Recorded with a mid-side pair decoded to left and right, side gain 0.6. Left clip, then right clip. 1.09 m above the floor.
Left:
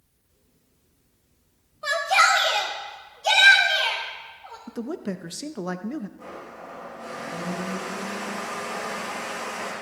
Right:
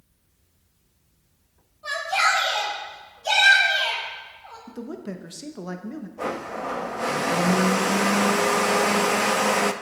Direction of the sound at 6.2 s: 70° right.